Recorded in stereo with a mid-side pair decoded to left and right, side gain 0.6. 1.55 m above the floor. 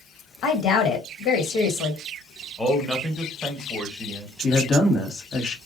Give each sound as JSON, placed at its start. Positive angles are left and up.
{"t": 0.4, "sound": "a woman speaking", "azimuth_deg": 60, "distance_m": 1.2}
{"t": 2.6, "sound": "a man speaking", "azimuth_deg": 10, "distance_m": 1.3}
{"t": 4.4, "sound": "a woman speaking", "azimuth_deg": 35, "distance_m": 1.1}